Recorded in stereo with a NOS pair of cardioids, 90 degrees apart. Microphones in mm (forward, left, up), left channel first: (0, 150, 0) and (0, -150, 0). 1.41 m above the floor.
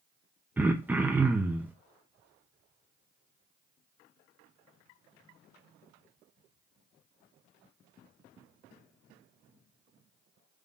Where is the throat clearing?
5° right, 0.5 m.